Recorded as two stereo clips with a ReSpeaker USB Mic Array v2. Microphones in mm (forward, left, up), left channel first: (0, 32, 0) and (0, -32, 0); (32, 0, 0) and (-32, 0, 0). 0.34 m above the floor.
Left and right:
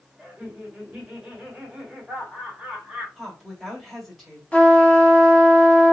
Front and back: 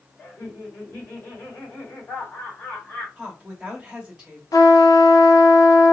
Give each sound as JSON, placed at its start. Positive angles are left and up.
{"t": 0.2, "sound": "laughter", "azimuth_deg": -15, "distance_m": 1.7}
{"t": 3.2, "sound": "a woman speaking", "azimuth_deg": 165, "distance_m": 0.9}
{"t": 4.5, "sound": "a trumpet", "azimuth_deg": 20, "distance_m": 0.7}